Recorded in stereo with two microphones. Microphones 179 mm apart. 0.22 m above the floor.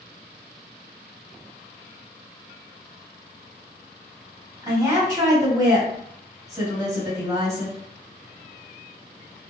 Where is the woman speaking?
20° right (ahead or behind), 1.8 m.